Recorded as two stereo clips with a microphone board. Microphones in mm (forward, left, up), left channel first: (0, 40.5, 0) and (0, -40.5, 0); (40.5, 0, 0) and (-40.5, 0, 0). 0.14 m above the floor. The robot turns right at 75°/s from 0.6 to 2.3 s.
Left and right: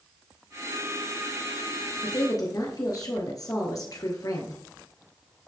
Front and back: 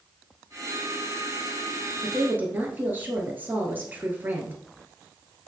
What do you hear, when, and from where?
2.0 s a woman speaking: 95° left, 2 m; by 4.6 s 115° left, 2 m